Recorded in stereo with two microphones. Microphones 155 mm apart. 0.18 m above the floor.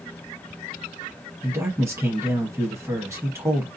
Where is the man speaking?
20° right (ahead or behind), 1.0 m.